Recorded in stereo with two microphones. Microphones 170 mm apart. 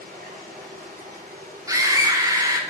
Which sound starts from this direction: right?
Running water, at 0.0 s.